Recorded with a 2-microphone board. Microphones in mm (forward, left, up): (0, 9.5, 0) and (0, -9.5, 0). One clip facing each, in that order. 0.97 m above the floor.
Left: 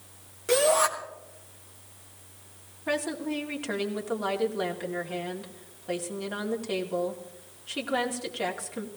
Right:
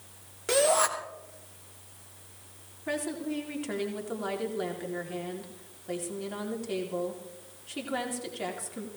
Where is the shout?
10° right (ahead or behind), 2.5 m.